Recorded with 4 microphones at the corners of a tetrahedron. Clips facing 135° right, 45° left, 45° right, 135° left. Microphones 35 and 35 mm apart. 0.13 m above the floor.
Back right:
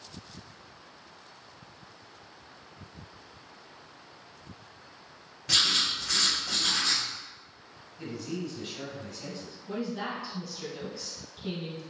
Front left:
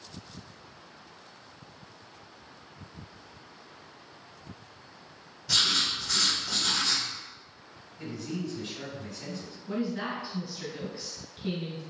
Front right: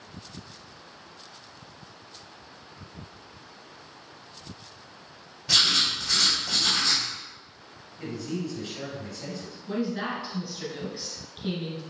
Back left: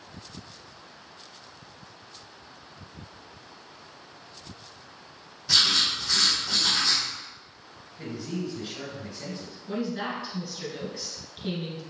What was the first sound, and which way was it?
Writing, 105° right.